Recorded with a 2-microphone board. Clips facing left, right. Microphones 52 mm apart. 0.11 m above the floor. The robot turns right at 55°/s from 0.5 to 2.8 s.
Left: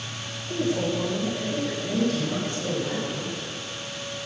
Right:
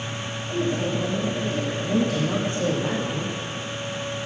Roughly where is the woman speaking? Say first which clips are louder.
Even; left.